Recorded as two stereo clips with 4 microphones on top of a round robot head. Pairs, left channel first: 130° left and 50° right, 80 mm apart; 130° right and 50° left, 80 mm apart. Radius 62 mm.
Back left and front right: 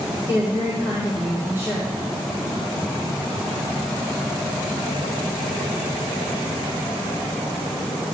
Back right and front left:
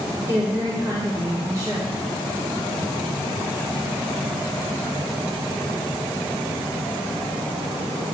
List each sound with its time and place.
0.3 s a woman speaking: 5° left, 1.9 m